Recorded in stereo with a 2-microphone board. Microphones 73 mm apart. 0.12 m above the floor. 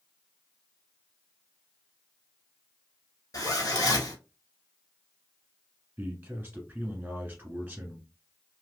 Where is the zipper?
55° left (ahead or behind), 1.2 m.